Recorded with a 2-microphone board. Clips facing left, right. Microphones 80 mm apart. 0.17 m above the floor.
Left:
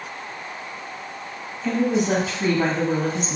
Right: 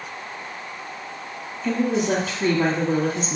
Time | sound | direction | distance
1.6 | a woman speaking | 5° left (ahead or behind) | 1.1 m